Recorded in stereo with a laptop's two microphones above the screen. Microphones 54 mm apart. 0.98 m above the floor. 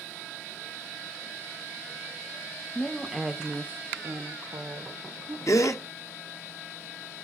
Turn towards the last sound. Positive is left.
turn(degrees=65)  # may be behind; listen again after turning